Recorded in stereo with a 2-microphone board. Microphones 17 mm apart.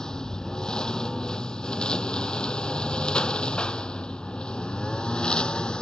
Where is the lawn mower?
50° left (ahead or behind); by 5.8 s 75° left (ahead or behind).